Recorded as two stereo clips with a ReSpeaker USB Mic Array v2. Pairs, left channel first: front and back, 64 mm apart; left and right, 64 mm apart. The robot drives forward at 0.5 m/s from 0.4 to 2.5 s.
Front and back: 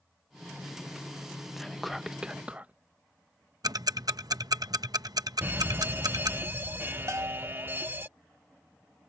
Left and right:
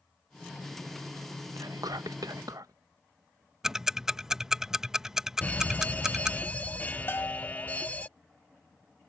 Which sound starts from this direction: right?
Whispering, at 1.6 s.